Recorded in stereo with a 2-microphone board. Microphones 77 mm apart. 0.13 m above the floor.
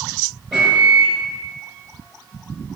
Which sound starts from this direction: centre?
A microwave, at 0.5 s.